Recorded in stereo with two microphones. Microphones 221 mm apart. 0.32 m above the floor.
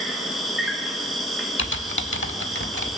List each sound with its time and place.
0.0 s an insect: centre (ahead or behind), 1.4 m
1.6 s typing on a keyboard: 65° left (ahead or behind), 0.7 m